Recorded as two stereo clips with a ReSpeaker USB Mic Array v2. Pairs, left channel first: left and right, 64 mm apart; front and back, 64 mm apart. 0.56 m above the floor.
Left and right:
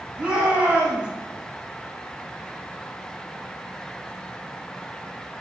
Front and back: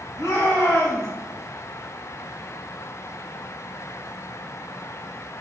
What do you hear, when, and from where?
0.2 s a shout: 25° right, 3.5 m